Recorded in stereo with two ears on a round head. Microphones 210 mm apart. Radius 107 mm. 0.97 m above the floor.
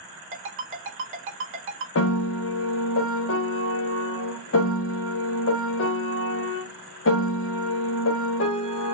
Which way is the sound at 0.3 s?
60° right (ahead or behind).